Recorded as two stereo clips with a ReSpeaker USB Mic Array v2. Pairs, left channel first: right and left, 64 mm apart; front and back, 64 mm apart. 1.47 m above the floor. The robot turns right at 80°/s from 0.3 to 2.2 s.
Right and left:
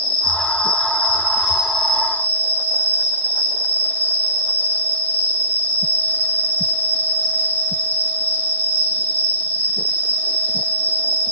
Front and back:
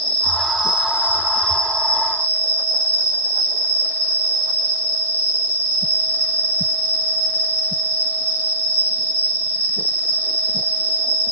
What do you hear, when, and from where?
0.0 s an insect: 70° left, 1.9 m; by 11.3 s 140° right, 1.9 m